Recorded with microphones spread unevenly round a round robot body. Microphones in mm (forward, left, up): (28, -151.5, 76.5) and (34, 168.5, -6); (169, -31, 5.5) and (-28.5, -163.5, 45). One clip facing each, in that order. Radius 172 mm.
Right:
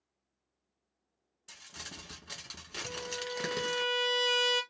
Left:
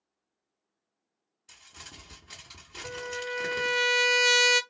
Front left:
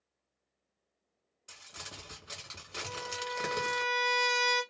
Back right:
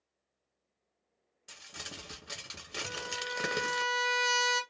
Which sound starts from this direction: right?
Crumpling, at 1.5 s.